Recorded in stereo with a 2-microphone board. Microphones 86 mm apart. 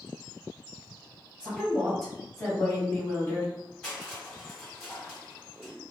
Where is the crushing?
10° left (ahead or behind), 2.0 m.